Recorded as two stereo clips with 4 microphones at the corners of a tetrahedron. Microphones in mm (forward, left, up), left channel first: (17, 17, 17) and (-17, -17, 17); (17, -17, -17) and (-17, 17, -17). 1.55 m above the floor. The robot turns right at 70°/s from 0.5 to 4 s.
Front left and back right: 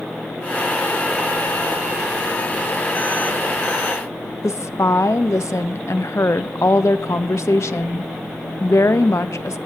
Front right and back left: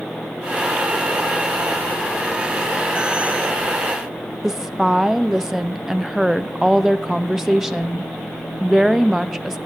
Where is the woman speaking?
55° left, 0.7 m.